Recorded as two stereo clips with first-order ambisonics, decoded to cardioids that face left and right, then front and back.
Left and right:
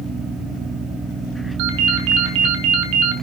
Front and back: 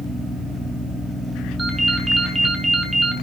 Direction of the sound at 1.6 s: 100° right.